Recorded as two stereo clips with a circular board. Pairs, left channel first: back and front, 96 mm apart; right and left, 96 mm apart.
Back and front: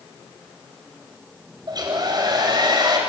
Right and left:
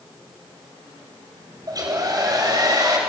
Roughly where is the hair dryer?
Ahead left.